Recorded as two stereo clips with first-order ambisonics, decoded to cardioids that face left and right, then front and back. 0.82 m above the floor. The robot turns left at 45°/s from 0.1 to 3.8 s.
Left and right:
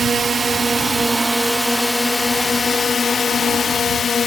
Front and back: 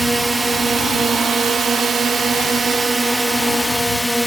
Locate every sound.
0.0 s a drone: 105° right; by 4.3 s 85° left